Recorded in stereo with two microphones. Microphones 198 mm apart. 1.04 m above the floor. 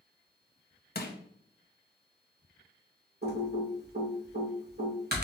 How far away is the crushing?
About 0.7 m.